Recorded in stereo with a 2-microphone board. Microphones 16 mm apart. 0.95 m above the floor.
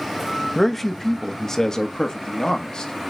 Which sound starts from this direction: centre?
A man speaking, at 0.6 s.